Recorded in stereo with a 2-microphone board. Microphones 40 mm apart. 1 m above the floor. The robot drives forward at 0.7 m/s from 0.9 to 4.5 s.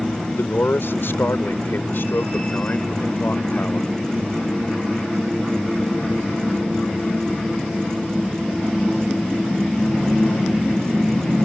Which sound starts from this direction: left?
A man speaking, at 0.4 s.